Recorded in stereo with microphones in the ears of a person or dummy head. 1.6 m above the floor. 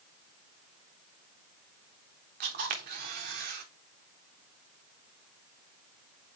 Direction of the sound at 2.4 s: 40° right (ahead or behind).